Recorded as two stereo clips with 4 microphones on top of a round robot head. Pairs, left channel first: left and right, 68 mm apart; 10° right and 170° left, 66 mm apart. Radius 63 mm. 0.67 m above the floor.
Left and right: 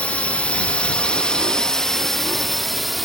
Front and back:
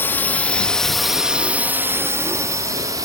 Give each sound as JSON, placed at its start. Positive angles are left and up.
{"t": 0.0, "sound": "a drone", "azimuth_deg": 30}